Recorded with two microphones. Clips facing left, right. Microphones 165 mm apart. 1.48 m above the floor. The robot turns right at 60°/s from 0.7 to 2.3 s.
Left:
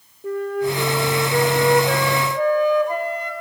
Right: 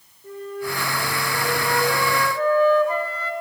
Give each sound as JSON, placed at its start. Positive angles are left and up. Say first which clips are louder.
{"t": 0.2, "sound": "a flute", "louder": "left 8 dB", "azimuth_deg": 70, "distance_m": 0.5}